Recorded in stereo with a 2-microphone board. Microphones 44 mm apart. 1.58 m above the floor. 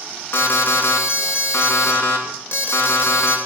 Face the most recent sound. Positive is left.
turn(degrees=75)  # may be behind; listen again after turning